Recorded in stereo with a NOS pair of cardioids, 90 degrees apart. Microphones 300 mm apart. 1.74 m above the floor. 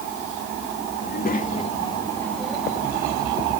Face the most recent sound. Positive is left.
turn(degrees=-15)